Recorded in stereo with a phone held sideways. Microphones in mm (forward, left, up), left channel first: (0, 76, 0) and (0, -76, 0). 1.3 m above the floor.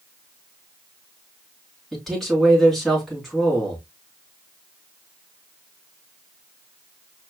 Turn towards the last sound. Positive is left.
turn(degrees=0)  # may be behind; listen again after turning